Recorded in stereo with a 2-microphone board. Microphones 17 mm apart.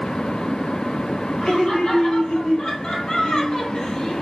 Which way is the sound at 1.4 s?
75° left (ahead or behind).